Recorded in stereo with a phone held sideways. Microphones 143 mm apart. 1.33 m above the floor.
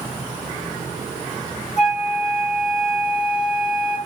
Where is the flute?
50° left (ahead or behind), 1.7 m.